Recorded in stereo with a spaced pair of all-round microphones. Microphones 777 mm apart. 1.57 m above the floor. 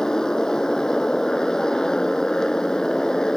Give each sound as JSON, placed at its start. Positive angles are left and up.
{"t": 0.0, "sound": "a motorcycle", "side_deg": 0}